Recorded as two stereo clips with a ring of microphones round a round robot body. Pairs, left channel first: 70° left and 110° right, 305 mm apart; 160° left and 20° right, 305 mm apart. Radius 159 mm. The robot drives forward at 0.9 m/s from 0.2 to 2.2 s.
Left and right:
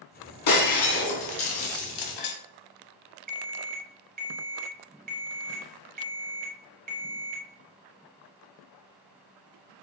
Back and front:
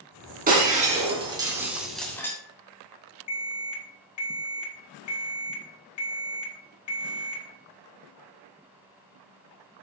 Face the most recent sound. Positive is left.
turn(degrees=-175)